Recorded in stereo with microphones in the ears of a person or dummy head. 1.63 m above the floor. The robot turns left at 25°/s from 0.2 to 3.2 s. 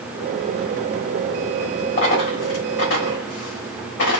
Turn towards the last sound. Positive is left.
turn(degrees=65)  # may be behind; listen again after turning